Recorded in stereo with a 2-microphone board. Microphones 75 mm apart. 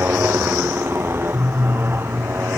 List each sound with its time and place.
0.0 s a motorcycle: 30° right (ahead or behind)